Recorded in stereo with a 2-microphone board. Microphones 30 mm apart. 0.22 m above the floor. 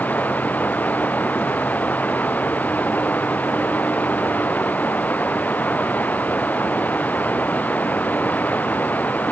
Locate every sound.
0.0 s running water: 60° left (ahead or behind)